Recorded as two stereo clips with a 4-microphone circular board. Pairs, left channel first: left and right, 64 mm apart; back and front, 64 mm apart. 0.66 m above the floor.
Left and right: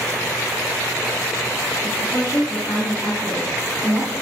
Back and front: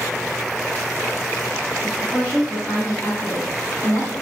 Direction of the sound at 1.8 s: 105° left.